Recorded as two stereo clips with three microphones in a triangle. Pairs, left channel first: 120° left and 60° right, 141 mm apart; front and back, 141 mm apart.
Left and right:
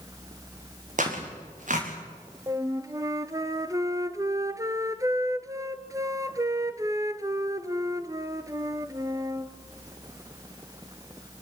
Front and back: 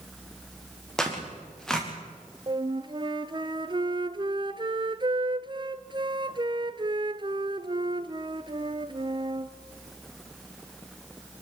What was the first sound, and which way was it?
Tearing paper, 85° right.